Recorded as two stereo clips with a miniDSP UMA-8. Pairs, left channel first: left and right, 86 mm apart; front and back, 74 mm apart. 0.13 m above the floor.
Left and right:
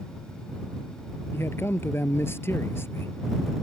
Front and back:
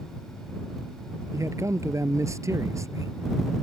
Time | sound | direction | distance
1.3 | a man speaking | 145° left | ?